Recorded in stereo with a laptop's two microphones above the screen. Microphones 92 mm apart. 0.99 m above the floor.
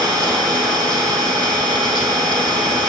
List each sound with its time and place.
0.0 s an engine running: 60° right (ahead or behind), 3.5 m